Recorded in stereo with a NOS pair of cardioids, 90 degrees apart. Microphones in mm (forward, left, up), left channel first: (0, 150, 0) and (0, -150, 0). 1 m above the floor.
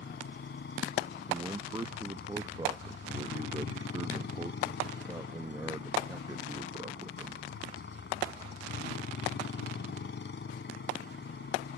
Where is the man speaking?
15° right.